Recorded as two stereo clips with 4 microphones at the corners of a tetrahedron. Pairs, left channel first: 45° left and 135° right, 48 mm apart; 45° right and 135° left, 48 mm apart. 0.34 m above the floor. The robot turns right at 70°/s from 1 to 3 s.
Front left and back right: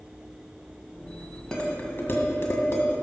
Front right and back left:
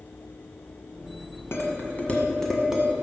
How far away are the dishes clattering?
About 1.8 m.